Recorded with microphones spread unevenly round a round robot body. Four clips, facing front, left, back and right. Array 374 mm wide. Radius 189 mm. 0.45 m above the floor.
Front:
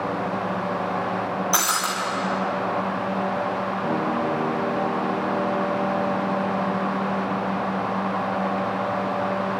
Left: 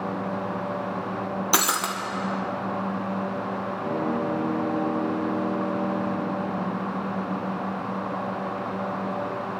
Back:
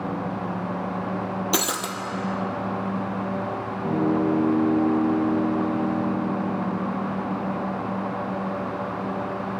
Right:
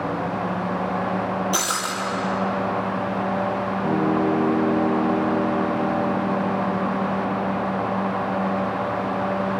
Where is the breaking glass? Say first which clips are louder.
Even, front 2 dB; 160° left, 1.4 m.